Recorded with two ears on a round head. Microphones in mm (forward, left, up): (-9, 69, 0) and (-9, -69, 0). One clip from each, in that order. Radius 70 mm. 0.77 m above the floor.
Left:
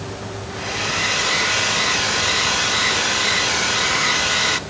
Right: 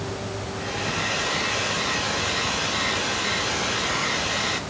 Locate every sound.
0.5 s a hair dryer: 40° left (ahead or behind), 1.3 m